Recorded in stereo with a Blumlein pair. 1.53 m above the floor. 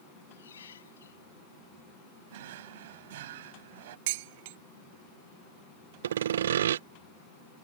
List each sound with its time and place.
0.3 s a squeak: 65° left
2.3 s a drawer: 55° right
4.1 s dishes clattering: 50° right
6.0 s sawing: 60° right